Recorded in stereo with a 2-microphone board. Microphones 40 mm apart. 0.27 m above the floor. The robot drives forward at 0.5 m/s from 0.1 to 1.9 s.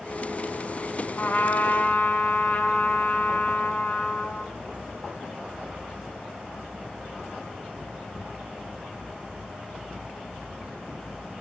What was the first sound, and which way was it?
A trumpet, 50° left (ahead or behind).